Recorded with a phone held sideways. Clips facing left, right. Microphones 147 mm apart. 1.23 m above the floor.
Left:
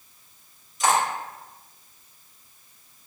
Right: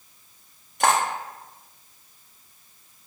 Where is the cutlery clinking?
60° right (ahead or behind), 0.5 m.